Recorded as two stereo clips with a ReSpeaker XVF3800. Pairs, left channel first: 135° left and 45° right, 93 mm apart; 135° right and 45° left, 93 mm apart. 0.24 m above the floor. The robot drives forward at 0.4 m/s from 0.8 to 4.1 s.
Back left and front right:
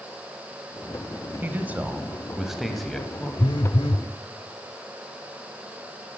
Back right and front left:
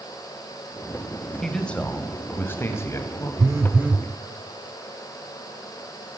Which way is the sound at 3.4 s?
95° left.